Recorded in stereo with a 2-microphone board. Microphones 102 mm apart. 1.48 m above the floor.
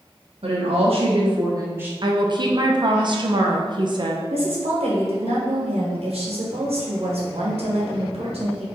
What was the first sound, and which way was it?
A woman speaking, 75° right (ahead or behind).